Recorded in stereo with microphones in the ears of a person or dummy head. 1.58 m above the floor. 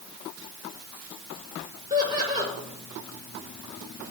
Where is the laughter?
20° right (ahead or behind), 6 m.